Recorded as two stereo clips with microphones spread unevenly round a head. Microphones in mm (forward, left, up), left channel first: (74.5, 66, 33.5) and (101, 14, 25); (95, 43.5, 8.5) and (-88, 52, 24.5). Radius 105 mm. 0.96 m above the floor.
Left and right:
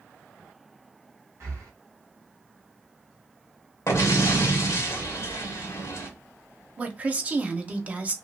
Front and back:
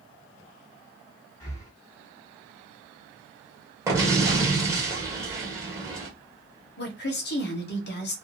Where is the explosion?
105° left, 1.3 m.